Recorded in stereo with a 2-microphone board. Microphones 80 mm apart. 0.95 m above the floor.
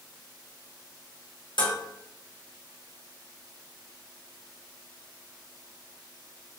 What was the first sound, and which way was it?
Dishes clattering, 75° left (ahead or behind).